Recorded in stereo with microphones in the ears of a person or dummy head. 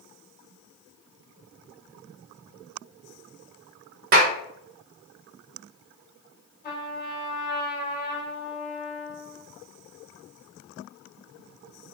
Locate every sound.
4.1 s a clap: 50° right (ahead or behind), 0.6 m
6.6 s a trumpet: 45° left (ahead or behind), 1.5 m